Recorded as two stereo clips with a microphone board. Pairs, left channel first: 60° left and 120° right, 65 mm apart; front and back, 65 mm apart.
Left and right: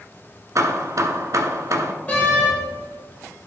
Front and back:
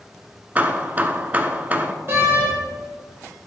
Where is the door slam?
125° left, 3.5 m.